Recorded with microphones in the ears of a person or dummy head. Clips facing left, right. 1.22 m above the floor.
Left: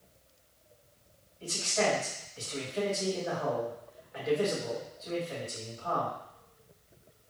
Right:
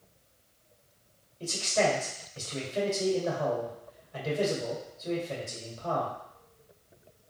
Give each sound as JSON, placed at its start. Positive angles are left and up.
{"t": 1.4, "sound": "a man speaking", "side_deg": -55, "distance_m": 2.5}